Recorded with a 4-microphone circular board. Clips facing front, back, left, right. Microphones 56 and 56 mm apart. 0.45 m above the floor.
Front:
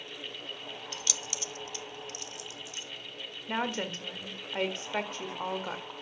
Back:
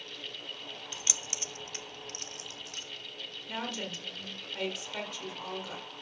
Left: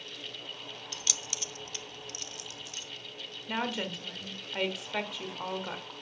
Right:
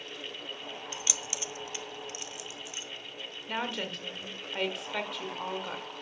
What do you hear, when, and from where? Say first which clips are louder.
0.9 s keys jangling: front 1 dB, left 1 dB; 135° right, 0.5 m; by 2.9 s 160° right, 1.5 m
3.5 s a woman speaking: front 5 dB, left 1 dB; 5° left, 1.5 m